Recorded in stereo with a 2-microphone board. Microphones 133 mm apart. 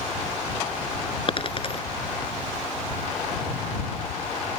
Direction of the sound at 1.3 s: 40° left (ahead or behind).